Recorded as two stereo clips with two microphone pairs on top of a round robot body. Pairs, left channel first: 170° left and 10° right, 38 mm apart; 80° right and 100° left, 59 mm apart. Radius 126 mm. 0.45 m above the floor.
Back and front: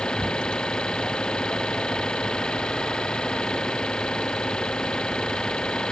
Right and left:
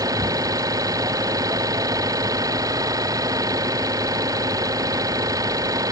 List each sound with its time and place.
0.0 s an engine running: 100° left